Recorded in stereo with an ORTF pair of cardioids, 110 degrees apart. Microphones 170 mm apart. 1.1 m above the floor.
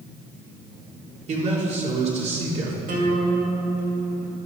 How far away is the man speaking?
About 2.5 m.